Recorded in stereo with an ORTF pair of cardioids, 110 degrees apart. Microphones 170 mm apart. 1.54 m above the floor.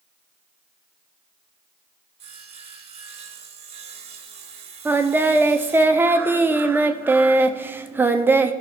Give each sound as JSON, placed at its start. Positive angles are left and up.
{"t": 2.2, "sound": "sawing", "azimuth_deg": -35, "distance_m": 1.7}
{"t": 4.8, "sound": "singing", "azimuth_deg": -10, "distance_m": 0.7}